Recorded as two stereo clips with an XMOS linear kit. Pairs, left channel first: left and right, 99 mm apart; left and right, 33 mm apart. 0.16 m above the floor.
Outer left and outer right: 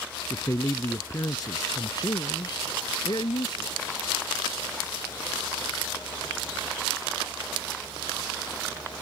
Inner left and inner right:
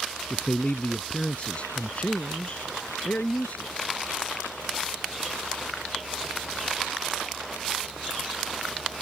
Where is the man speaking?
30° left (ahead or behind); by 3.9 s 55° left (ahead or behind).